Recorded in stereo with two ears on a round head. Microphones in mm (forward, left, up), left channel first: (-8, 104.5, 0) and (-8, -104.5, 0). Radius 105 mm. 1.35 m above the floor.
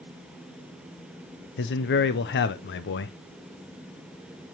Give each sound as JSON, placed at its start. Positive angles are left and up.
{"t": 1.6, "sound": "a man speaking", "side_deg": 45, "distance_m": 0.6}